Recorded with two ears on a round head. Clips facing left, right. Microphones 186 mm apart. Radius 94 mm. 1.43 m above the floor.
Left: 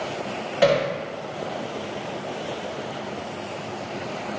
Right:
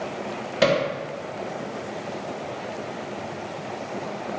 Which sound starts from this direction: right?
Hammering, at 0.6 s.